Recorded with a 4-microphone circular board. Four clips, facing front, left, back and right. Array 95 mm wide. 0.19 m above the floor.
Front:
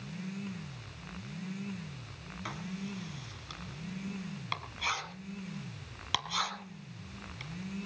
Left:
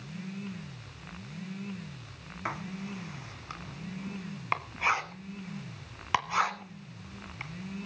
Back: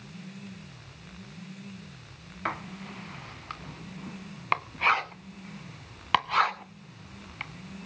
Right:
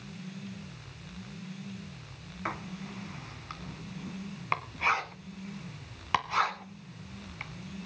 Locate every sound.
2.5 s writing: 175° left, 1.4 m